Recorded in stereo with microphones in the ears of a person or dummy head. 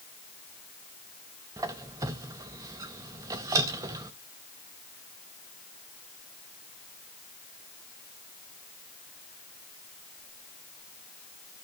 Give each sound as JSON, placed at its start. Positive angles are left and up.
{"t": 1.6, "sound": "a squeak", "side_deg": -10, "distance_m": 0.6}